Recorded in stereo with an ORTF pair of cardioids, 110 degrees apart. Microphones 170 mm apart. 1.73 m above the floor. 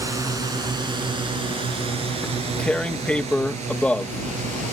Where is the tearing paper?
5° left.